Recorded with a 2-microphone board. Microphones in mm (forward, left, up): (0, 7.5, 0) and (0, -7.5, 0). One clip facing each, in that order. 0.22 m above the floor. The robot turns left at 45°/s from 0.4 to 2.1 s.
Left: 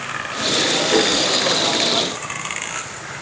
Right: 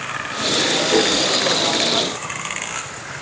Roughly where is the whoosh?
Left.